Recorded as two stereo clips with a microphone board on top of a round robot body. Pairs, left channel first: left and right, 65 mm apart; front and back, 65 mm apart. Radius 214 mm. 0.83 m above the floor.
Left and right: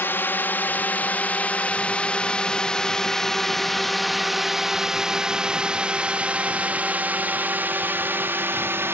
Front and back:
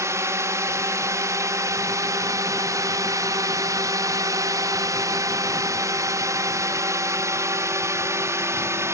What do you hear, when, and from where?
0.0 s a drone: 145° left; by 8.9 s 140° right